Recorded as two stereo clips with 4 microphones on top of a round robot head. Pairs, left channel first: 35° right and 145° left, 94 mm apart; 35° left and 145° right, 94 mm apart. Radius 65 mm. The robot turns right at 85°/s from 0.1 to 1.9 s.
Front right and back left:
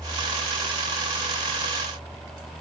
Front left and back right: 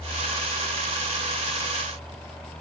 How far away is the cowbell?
No cowbell in this recording.